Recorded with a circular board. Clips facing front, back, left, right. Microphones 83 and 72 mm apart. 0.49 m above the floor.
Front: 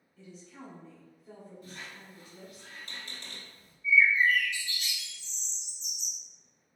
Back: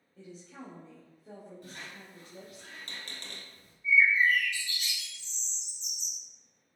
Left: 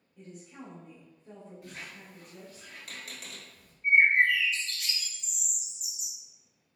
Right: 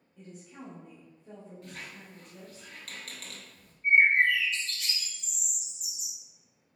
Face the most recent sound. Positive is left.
turn(degrees=175)